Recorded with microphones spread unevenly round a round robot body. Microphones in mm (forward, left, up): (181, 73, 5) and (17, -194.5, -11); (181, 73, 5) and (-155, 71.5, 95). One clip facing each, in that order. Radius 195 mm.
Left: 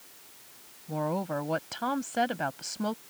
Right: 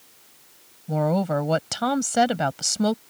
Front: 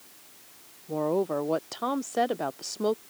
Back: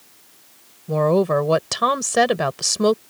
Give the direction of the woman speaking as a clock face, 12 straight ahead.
5 o'clock.